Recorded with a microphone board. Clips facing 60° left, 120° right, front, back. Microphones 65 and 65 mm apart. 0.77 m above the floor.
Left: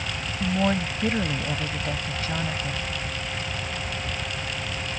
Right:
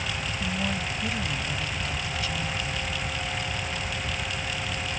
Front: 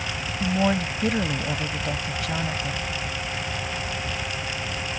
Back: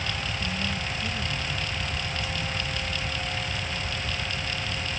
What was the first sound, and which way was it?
A woman speaking, 15° left.